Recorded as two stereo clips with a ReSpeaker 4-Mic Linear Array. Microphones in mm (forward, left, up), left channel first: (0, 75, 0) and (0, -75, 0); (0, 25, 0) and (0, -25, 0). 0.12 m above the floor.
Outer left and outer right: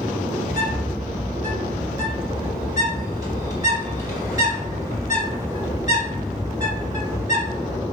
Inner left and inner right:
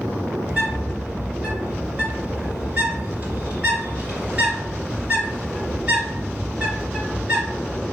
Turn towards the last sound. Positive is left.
turn(degrees=-25)  # may be behind; listen again after turning